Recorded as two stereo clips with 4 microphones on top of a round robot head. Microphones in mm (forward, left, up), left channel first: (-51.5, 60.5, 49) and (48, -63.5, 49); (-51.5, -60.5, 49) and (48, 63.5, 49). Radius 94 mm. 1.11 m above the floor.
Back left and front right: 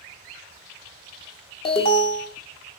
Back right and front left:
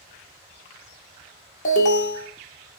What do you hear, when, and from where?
1.6 s an alarm: 175° right, 0.9 m